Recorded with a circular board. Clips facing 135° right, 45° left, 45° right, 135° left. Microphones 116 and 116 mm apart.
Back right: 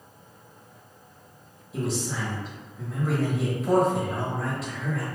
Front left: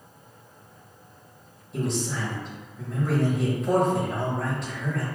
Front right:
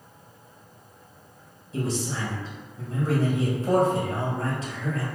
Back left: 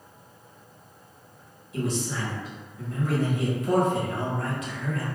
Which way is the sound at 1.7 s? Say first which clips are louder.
Front left 1 dB, even; 50° right.